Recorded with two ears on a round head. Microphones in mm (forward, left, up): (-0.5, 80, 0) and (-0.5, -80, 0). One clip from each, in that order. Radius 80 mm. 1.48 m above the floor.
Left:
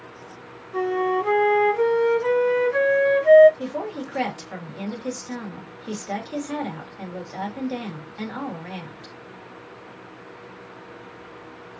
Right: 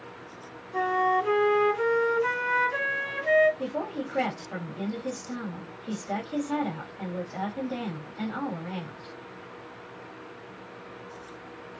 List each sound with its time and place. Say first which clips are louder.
0.7 s a flute: left 1 dB; 10° right (ahead or behind), 1.5 m
3.6 s a woman speaking: left 2 dB; 35° left (ahead or behind), 1.7 m